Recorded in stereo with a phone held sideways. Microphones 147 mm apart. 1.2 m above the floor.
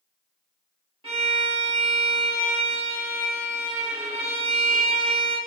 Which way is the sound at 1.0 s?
40° right (ahead or behind).